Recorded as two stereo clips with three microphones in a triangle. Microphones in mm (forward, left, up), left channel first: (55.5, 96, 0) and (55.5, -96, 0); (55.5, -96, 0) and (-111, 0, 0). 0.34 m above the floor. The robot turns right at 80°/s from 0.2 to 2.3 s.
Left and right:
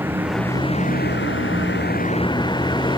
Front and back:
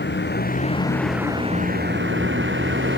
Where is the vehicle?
10° right; by 3.0 s 155° left.